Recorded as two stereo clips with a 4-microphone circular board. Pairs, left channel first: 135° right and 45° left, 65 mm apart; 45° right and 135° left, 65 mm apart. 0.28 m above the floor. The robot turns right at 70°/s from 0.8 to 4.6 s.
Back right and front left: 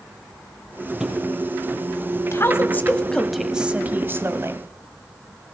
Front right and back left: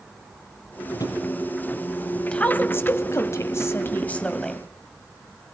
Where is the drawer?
45° right, 4.5 m; by 1.2 s 25° right, 4.5 m.